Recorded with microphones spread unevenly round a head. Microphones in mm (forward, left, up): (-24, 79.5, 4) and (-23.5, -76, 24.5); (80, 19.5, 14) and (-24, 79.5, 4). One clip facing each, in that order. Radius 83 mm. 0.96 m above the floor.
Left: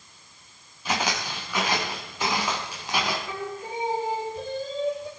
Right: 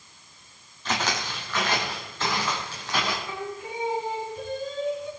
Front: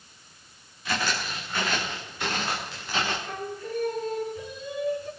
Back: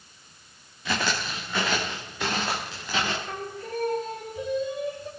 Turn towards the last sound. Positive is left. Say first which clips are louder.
# left 1 dB, front 1 dB
turn(degrees=145)